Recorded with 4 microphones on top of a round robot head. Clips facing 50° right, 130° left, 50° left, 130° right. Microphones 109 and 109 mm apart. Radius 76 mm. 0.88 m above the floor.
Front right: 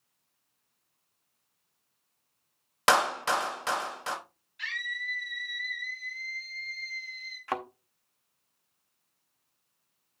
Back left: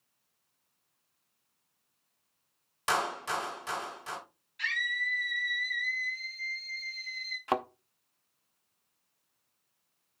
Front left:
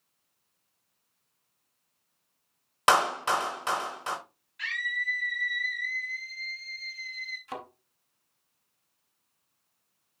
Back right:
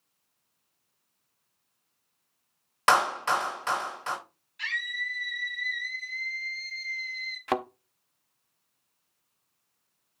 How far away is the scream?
About 2.5 m.